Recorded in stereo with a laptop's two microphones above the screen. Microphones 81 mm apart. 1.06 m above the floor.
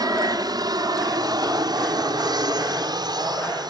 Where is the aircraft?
55° right (ahead or behind); by 3.7 s 60° right (ahead or behind).